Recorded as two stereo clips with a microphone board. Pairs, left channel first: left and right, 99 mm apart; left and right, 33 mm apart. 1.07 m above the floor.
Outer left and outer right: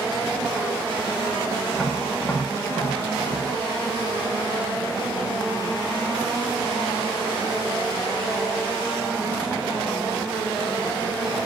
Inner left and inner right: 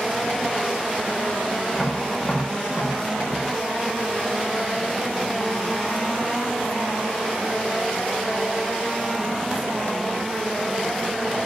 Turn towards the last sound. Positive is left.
turn(degrees=10)  # may be behind; listen again after turning